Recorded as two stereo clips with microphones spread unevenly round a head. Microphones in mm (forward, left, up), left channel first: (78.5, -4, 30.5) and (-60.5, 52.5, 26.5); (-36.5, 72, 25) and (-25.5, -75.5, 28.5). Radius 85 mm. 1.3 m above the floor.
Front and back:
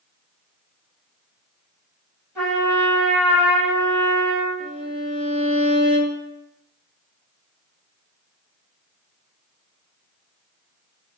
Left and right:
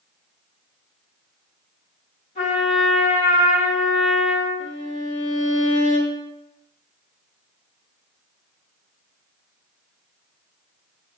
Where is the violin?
125° left, 0.6 m.